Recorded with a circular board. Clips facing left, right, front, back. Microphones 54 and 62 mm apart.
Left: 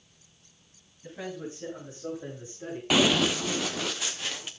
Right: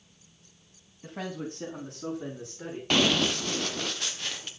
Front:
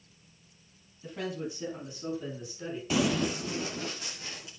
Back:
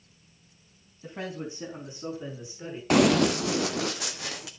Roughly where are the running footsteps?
Behind.